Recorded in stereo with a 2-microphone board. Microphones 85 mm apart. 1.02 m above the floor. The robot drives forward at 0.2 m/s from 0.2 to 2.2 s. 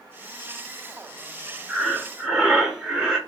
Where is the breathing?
10° right (ahead or behind), 0.8 m.